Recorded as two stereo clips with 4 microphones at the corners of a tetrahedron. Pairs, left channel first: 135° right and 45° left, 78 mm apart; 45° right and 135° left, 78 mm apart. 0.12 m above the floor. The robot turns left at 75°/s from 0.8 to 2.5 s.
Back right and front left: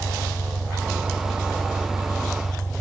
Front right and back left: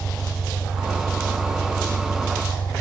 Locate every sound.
0.0 s an engine running: 25° left, 1.5 m; by 2.8 s 100° right, 1.5 m